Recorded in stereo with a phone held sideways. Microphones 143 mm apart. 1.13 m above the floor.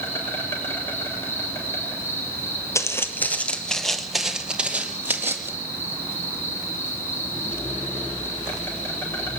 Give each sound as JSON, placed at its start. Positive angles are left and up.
{"t": 0.0, "sound": "an insect", "side_deg": 15, "distance_m": 6.5}
{"t": 2.8, "sound": "footsteps", "side_deg": 20, "distance_m": 1.8}